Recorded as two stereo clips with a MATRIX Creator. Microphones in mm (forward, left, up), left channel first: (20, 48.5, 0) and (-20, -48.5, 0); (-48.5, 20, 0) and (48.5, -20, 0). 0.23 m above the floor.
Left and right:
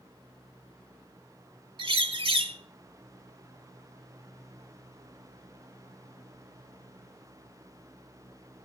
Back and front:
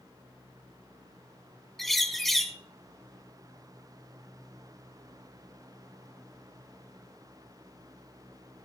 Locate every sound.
1.8 s a bird: 115° right, 0.7 m